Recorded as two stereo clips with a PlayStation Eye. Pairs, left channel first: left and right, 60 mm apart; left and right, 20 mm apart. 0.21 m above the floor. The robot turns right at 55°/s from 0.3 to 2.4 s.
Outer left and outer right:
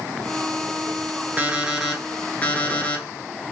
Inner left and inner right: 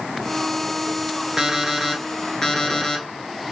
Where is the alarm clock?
30° right, 1.3 m; by 3.0 s 25° left, 1.3 m.